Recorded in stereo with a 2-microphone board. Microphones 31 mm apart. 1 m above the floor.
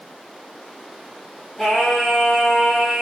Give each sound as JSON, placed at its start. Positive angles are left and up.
{"t": 1.6, "sound": "singing", "side_deg": 15, "distance_m": 1.6}